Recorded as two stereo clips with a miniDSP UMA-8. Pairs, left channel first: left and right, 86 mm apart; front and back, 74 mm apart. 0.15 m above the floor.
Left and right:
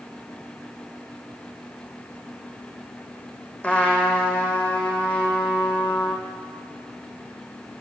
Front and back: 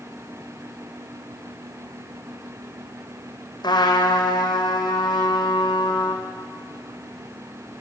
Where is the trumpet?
15° left, 2.0 m.